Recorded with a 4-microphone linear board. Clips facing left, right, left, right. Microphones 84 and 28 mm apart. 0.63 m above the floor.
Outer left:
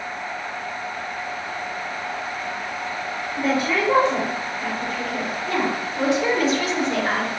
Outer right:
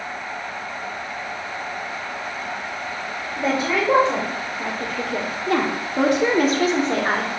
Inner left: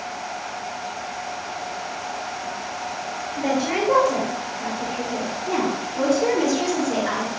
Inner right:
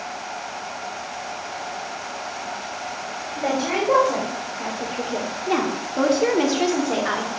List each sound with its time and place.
3.4 s a woman speaking: 30° right (ahead or behind), 2.5 m